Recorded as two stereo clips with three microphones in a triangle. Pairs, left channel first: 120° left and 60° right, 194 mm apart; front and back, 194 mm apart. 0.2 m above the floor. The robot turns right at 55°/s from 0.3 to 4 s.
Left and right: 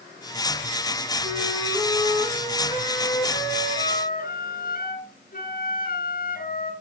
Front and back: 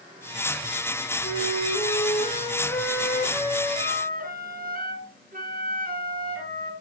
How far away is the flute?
About 3 m.